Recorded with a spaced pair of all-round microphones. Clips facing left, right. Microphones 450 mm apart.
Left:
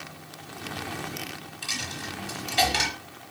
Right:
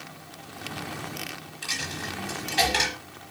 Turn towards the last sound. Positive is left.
turn(degrees=0)  # may be behind; listen again after turning